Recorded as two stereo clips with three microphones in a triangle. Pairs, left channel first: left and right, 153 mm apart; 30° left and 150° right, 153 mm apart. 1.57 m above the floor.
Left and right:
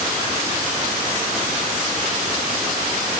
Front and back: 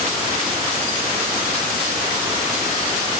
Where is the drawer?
No drawer in this recording.